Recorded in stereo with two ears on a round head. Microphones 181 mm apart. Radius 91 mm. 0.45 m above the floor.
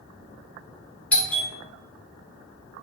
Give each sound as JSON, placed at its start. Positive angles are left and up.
{"t": 1.1, "sound": "a doorbell", "side_deg": 5, "distance_m": 1.6}